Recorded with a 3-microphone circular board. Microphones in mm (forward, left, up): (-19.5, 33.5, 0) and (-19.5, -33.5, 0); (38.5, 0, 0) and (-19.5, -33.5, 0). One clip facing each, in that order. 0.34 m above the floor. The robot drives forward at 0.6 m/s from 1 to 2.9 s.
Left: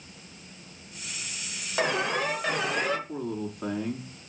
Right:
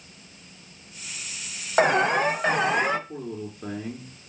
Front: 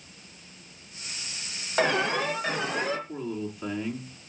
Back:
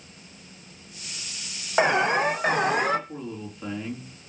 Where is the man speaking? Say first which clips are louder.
Left 2 dB, front 3 dB; 115° left, 3.5 m.